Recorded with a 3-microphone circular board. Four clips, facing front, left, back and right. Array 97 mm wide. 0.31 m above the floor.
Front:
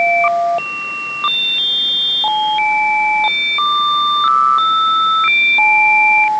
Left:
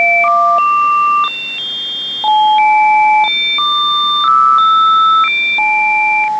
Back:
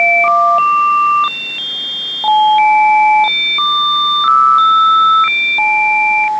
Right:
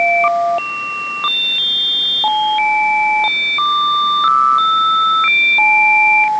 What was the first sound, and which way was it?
Only background noise.